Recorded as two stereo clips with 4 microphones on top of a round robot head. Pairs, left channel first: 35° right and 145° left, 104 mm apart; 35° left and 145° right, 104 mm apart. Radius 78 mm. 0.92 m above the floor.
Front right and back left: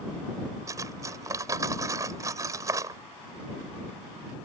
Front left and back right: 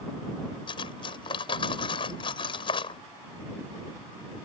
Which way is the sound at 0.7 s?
80° left.